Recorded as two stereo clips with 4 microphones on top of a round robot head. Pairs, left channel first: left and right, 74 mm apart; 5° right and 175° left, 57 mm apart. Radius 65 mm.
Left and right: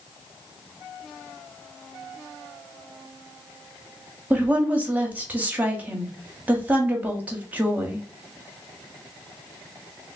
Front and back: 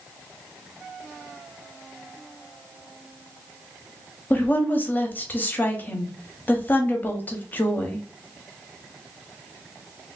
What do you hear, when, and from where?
4.3 s a woman speaking: 35° right, 0.7 m